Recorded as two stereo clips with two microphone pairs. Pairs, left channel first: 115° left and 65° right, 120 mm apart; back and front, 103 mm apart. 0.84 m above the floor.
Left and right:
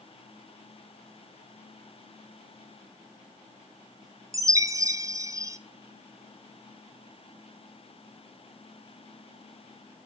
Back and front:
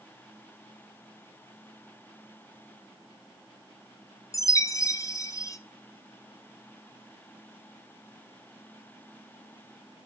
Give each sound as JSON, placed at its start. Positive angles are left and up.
{"t": 4.3, "sound": "a chime", "azimuth_deg": -125, "distance_m": 0.6}